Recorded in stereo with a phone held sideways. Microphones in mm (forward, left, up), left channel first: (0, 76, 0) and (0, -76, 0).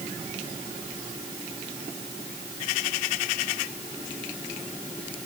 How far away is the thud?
No thud in this recording.